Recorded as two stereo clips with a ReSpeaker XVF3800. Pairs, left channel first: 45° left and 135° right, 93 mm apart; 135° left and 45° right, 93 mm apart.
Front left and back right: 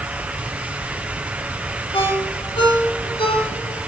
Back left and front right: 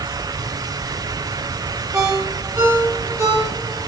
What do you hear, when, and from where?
1.9 s a ringtone: 15° left, 9.5 m